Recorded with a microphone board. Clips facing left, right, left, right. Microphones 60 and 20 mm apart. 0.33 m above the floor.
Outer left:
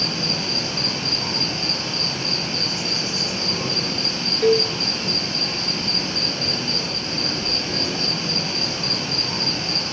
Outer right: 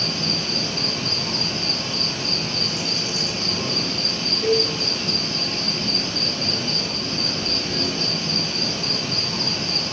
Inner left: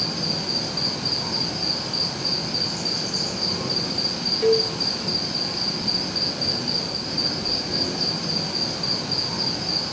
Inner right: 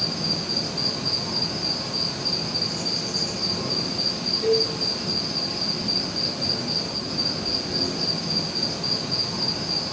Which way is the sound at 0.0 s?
45° left (ahead or behind).